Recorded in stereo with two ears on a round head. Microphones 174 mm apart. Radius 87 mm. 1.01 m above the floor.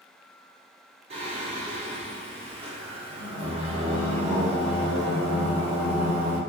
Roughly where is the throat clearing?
No throat clearing in this recording.